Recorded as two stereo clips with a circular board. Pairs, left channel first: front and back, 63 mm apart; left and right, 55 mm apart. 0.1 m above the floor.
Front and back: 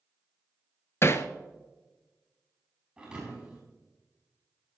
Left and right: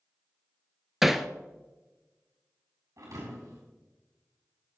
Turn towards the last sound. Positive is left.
turn(degrees=-100)